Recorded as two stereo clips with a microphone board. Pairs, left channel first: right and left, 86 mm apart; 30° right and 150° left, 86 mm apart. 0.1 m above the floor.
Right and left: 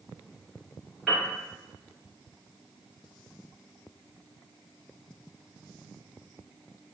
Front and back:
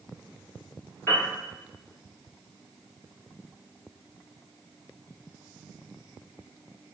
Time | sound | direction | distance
1.1 | a piano | straight ahead | 2.0 m